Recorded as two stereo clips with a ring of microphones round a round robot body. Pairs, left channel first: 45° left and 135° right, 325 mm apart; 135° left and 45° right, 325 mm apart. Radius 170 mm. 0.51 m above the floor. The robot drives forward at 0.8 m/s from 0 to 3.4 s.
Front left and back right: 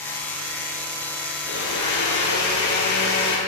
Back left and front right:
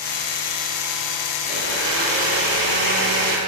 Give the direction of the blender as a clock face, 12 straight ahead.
12 o'clock.